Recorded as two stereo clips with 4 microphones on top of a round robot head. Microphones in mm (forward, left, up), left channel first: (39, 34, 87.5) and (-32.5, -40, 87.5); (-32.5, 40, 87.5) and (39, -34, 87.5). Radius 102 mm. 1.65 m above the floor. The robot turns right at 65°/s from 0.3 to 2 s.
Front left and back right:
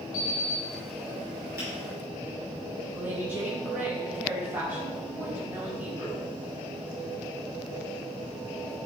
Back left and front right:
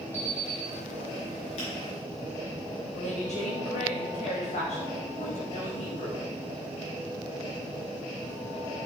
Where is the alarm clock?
60° left, 2.5 m; by 0.6 s 85° left, 2.5 m.